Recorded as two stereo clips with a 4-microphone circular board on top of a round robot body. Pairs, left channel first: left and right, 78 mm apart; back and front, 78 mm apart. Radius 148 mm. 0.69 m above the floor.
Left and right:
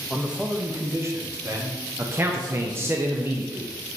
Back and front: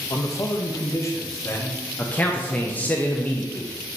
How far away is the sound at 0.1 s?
About 1.0 m.